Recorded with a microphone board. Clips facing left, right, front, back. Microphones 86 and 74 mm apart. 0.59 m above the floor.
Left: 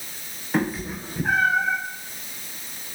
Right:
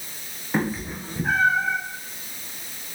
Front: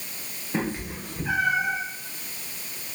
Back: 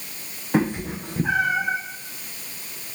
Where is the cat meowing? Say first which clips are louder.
Left 1 dB, back 7 dB; 175° right, 4.5 m; by 1.8 s 175° left, 6.5 m.